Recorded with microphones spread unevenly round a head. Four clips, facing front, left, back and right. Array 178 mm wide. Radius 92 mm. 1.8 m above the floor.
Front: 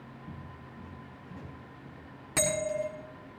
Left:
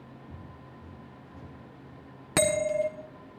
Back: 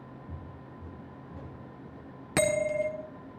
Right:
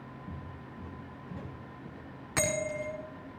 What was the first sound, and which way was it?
Footsteps, 40° right.